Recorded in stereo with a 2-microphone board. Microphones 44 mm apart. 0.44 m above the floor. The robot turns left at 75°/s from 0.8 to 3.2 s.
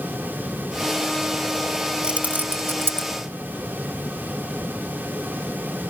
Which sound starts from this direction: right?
Keys jangling, at 2.0 s.